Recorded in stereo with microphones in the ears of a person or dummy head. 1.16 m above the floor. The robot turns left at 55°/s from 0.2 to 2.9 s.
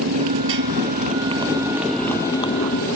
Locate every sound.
0.0 s a motorcycle: 80° right; by 3.0 s 50° left (ahead or behind)